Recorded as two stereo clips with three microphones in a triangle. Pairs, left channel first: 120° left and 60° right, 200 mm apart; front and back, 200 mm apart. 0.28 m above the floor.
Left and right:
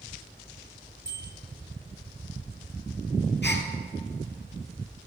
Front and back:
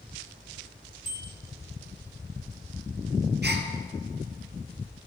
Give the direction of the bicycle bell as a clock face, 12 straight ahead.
8 o'clock.